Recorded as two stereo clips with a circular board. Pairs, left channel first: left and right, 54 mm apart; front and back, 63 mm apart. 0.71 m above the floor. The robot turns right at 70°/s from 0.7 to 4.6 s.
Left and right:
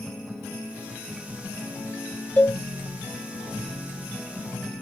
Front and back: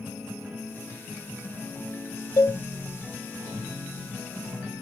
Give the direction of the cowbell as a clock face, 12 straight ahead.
11 o'clock.